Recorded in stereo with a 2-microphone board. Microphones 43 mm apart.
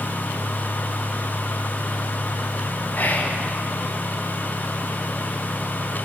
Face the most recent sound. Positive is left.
turn(degrees=45)  # may be behind; listen again after turning